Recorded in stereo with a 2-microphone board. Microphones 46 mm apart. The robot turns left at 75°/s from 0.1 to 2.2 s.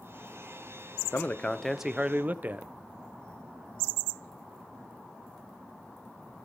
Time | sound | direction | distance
1.1 | a man speaking | 45° left | 0.7 m